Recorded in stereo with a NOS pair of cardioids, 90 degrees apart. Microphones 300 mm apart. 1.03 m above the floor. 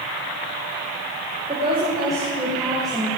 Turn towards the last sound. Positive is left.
turn(degrees=5)